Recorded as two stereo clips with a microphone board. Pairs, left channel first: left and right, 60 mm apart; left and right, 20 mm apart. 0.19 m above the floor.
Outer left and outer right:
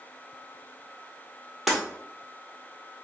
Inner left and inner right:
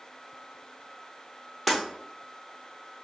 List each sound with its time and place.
1.7 s breaking glass: 5° right (ahead or behind), 1.7 m